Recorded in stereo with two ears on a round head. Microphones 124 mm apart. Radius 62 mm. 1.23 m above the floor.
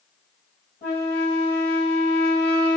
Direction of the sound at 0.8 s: 55° left (ahead or behind).